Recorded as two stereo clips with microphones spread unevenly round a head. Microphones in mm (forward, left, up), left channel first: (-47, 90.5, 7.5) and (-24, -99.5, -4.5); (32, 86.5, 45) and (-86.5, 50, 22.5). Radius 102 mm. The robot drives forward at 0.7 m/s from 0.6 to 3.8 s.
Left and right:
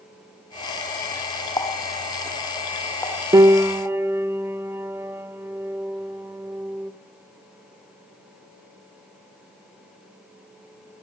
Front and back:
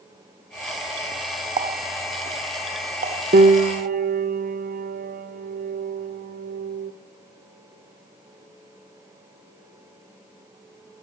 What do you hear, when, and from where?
1.6 s a running tap: 170° left, 1.4 m; by 4.0 s 175° left, 3 m
3.3 s a piano: 150° right, 0.7 m; by 6.9 s 160° right, 1.0 m